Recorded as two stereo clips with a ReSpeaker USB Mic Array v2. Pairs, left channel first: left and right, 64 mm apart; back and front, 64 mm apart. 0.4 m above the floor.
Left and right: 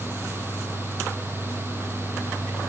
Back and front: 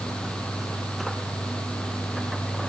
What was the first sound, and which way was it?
Only background noise.